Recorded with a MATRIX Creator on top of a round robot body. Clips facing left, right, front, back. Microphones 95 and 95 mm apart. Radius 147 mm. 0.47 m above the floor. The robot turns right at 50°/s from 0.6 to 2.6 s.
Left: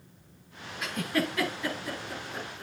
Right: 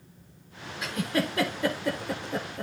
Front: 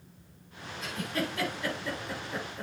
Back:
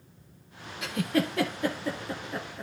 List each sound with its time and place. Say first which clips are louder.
0.8 s a giggle: right 1 dB, back 6 dB; straight behind, 1.6 m; by 2.6 s 90° right, 1.6 m